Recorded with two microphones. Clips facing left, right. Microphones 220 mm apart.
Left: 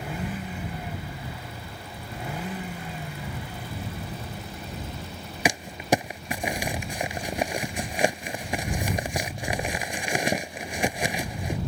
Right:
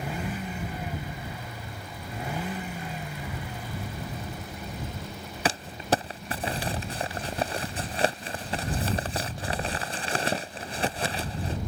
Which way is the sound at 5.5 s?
15° left (ahead or behind).